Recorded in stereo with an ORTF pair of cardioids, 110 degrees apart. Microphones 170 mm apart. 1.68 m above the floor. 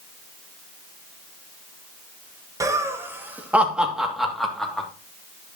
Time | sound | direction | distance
2.6 | laughter | 20° right | 2 m